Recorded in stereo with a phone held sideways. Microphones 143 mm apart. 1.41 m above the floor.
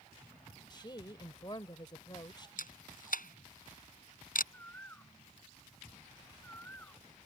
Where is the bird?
15° left (ahead or behind).